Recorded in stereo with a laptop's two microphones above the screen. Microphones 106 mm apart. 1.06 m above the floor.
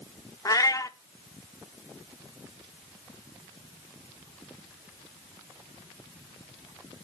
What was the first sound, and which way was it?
A cat meowing, 35° left (ahead or behind).